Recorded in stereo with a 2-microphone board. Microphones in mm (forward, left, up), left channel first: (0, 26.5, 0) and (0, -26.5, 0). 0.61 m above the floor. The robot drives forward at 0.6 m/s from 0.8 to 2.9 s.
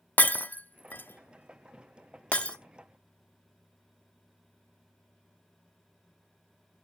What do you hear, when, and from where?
0.2 s breaking glass: 30° left (ahead or behind), 0.6 m; by 2.6 s 20° left (ahead or behind), 0.9 m